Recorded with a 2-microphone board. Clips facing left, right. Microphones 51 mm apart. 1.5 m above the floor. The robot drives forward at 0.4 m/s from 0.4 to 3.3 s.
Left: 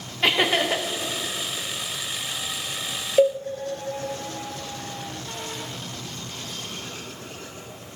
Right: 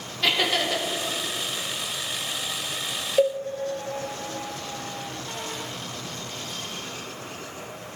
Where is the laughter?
25° left (ahead or behind), 1.3 m; by 0.8 s 30° left (ahead or behind), 1.1 m.